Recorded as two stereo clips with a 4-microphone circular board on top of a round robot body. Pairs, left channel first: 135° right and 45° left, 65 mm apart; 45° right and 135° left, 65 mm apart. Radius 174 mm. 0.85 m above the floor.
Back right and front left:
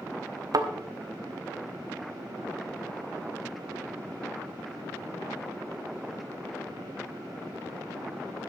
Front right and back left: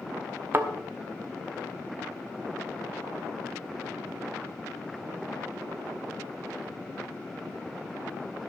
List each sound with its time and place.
0.5 s a thud: 75° left, 1.0 m